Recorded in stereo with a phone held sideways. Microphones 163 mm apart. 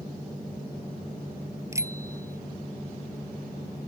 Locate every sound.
1.7 s a bicycle bell: 20° right (ahead or behind)